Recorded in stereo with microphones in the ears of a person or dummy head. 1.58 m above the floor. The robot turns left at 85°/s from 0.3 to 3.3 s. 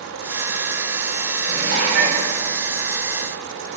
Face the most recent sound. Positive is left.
turn(degrees=160)